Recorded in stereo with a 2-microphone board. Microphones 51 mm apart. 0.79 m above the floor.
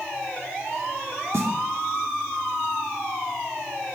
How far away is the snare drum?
About 1.6 m.